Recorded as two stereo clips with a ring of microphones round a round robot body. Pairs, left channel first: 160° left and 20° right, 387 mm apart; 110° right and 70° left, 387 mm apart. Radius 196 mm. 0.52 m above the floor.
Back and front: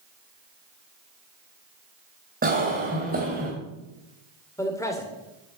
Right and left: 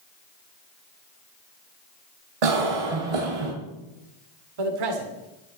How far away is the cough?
About 2.5 m.